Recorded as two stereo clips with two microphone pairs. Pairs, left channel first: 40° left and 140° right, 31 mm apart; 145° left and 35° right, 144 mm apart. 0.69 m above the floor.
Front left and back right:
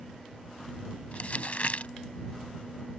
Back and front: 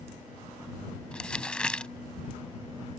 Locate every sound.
1.1 s crumpling: 65° left